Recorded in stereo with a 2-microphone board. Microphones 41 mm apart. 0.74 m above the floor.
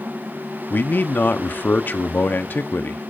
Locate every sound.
0.7 s a man speaking: 50° left (ahead or behind), 0.9 m